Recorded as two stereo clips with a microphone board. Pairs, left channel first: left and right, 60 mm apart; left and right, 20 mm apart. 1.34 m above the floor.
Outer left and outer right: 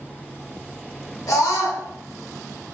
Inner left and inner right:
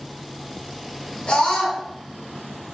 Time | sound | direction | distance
1.3 | a scream | 65° left (ahead or behind) | 1.1 m